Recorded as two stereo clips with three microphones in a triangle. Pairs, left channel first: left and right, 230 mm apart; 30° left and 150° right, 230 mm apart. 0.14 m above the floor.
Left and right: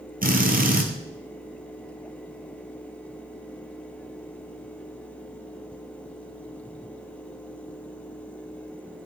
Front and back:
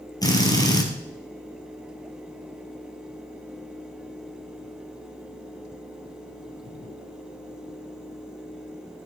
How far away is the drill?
About 1.9 m.